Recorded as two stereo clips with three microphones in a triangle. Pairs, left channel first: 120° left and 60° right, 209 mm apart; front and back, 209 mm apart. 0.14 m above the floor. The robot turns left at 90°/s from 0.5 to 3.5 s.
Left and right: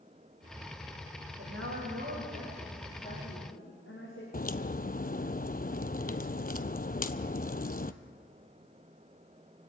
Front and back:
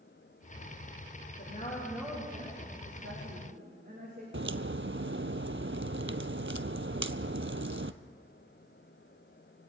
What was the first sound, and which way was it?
A woman speaking, 30° right.